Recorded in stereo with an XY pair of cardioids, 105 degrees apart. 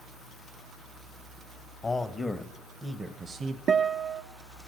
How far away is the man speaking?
About 1.4 m.